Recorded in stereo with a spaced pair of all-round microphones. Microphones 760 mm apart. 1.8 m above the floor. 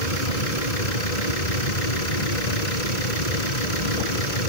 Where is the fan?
60° left (ahead or behind).